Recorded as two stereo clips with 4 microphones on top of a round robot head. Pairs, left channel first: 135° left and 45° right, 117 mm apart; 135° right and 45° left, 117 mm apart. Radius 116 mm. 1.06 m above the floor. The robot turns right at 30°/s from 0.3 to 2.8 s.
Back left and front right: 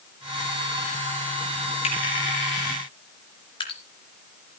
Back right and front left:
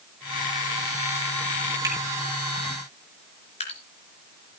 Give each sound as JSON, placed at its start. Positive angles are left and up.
{"t": 1.8, "sound": "a finger snap", "azimuth_deg": 105, "distance_m": 5.0}
{"t": 3.6, "sound": "dripping", "azimuth_deg": -175, "distance_m": 3.5}